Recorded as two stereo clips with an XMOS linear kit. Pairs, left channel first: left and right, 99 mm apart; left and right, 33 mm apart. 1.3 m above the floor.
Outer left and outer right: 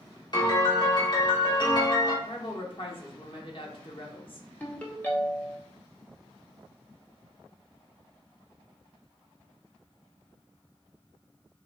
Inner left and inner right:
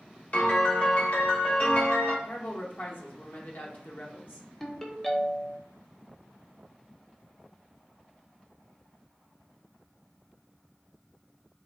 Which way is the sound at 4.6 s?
15° left (ahead or behind).